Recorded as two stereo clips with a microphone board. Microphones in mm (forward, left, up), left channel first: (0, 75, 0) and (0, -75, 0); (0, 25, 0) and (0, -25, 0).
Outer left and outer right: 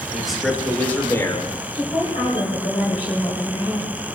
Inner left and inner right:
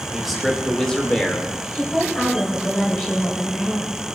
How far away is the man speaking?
About 2.5 m.